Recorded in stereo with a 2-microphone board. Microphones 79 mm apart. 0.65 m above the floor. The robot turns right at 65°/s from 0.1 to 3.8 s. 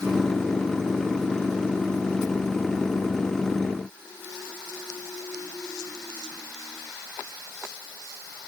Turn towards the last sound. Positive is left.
No sound to turn to.